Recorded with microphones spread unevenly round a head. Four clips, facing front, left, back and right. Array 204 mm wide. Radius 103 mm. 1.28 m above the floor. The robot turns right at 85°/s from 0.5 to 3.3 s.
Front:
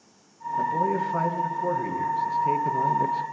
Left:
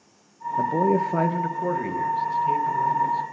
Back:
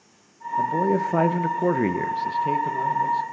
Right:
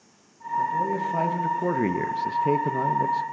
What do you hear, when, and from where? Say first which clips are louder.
0.6 s a man speaking: left 4 dB, back 3 dB; 100° left, 1.0 m; by 3.2 s 35° right, 1.0 m